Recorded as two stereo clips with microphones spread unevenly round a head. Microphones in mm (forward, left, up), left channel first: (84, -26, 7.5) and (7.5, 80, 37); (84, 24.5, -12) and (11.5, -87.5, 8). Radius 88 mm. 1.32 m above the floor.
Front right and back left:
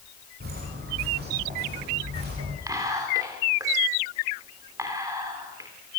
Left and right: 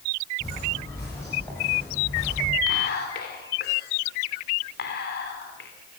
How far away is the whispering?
About 3.5 m.